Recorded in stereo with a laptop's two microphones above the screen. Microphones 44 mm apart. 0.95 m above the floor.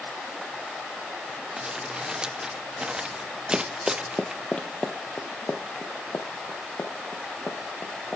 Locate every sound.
1.6 s crumpling: 15° right (ahead or behind), 1.3 m
3.5 s running footsteps: 20° right (ahead or behind), 1.5 m; by 8.2 s 60° left (ahead or behind), 6.5 m